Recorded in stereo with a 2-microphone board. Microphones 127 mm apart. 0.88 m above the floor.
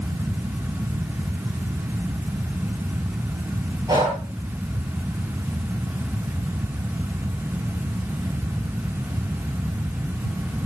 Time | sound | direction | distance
3.9 | breathing | 30° right (ahead or behind) | 9 m